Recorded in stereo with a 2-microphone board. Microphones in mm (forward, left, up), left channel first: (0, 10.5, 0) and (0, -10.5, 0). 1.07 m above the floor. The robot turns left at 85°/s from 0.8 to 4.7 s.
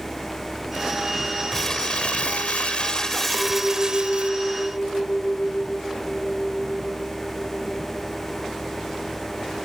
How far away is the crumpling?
About 1.1 m.